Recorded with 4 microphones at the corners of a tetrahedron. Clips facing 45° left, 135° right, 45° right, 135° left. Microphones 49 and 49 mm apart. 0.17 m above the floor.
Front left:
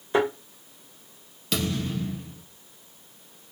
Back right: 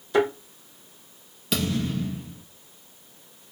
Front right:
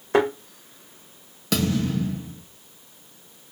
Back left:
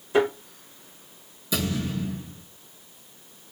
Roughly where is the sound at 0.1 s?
Ahead.